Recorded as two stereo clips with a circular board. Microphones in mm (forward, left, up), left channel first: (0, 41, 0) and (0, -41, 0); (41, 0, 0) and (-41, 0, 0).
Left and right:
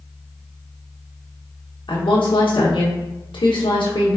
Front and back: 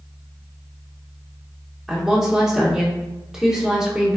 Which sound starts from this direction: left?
A woman speaking, at 1.9 s.